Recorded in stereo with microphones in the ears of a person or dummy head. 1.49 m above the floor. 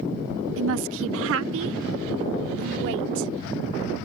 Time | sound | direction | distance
0.6 | a woman speaking | 75° right (ahead or behind) | ?